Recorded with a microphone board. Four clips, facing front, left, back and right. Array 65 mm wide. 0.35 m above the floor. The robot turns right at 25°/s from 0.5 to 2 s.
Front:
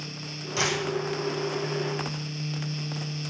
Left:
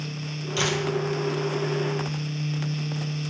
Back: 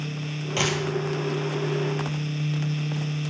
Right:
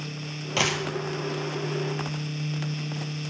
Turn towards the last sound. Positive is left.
turn(degrees=-75)